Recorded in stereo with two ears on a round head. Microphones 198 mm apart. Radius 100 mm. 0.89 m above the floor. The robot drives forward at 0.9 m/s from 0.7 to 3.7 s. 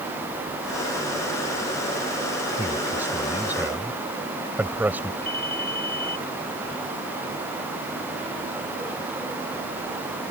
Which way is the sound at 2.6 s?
10° right (ahead or behind).